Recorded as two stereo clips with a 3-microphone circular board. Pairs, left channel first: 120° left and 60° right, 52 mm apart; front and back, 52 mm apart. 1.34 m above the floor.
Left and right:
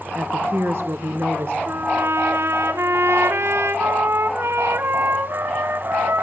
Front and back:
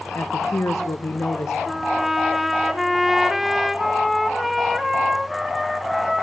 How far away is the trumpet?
About 1.3 m.